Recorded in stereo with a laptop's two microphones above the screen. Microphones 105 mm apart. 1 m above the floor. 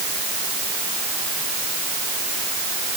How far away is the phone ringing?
No phone ringing in this recording.